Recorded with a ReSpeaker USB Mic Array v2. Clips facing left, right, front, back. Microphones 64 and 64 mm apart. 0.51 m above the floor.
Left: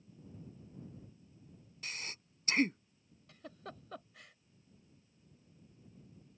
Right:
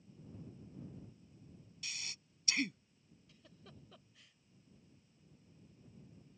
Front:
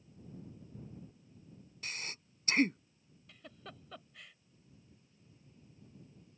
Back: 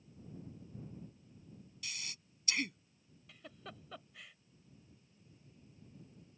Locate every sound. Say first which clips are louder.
1.8 s breathing: left 4 dB, front 5 dB; 45° left
3.3 s a giggle: left 12 dB, even; 95° left